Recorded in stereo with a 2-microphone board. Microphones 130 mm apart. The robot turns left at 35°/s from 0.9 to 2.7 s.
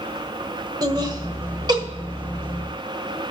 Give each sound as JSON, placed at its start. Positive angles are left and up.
{"t": 0.8, "sound": "laughter", "side_deg": -30, "distance_m": 1.3}